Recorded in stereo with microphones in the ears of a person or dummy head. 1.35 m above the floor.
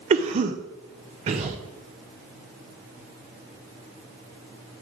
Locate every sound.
0.1 s a cough: 35° right (ahead or behind), 0.6 m